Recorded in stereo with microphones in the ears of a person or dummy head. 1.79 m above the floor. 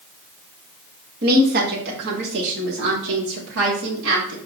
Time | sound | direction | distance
1.2 | a woman speaking | 50° right (ahead or behind) | 1.7 m